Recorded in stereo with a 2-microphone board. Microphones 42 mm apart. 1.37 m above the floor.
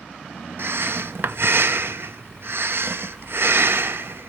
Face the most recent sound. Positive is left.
turn(degrees=-60)  # may be behind; listen again after turning